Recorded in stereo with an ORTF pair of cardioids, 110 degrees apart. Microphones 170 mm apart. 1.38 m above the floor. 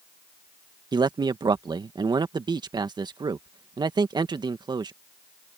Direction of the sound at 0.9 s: 25° right.